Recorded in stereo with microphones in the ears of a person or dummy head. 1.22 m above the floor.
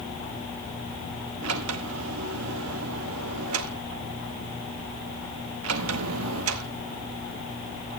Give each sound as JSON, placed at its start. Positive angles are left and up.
{"t": 1.4, "sound": "a sliding door", "side_deg": -80, "distance_m": 1.0}